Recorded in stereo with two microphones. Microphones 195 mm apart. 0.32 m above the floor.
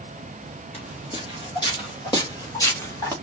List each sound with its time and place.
0.7 s footsteps: 30° left (ahead or behind), 4 m; by 3.1 s 10° left (ahead or behind), 2.5 m